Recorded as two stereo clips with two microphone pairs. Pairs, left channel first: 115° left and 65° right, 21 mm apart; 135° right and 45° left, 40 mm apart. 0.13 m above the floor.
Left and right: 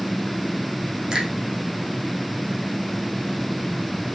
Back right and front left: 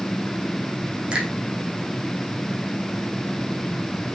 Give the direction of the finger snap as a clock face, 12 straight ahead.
1 o'clock.